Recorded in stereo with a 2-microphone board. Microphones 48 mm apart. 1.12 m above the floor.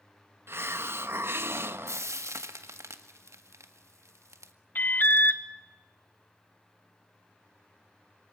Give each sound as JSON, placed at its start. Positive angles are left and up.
{"t": 0.5, "sound": "a hiss", "side_deg": -55, "distance_m": 1.0}
{"t": 1.9, "sound": "frying", "side_deg": -80, "distance_m": 1.7}
{"t": 4.8, "sound": "an alarm", "side_deg": 40, "distance_m": 0.9}